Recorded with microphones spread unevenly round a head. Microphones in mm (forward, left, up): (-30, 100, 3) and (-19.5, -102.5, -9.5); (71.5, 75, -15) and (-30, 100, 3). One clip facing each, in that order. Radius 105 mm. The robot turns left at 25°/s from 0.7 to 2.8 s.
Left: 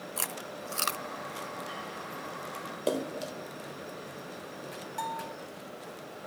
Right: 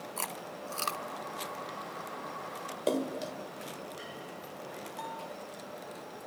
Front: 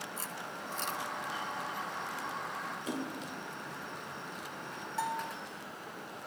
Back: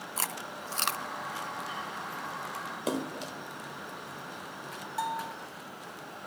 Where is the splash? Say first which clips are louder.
Even, back 7 dB; 175° left, 1.4 m.